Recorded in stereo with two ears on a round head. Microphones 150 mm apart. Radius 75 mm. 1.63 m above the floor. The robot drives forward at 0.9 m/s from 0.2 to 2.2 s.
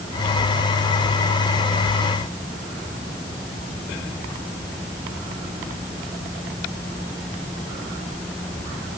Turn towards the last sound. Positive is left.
No sound to turn to.